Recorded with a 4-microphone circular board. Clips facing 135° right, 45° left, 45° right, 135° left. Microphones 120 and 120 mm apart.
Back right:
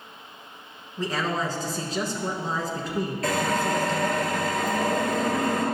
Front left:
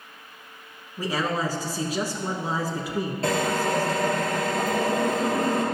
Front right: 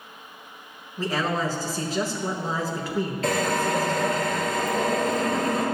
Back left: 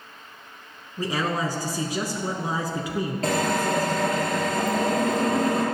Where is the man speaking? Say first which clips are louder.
Front left 1 dB, even; 100° left, 1.1 m.